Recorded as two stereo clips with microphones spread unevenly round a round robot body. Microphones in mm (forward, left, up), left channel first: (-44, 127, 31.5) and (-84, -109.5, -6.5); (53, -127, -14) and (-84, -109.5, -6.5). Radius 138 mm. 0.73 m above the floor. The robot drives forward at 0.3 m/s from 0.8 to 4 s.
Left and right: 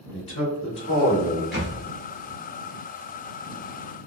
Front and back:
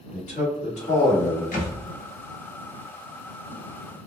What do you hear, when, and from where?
0.1 s a man speaking: 5° left, 1.7 m; by 1.4 s 10° left, 1.6 m
1.5 s a thud: 5° right, 1.2 m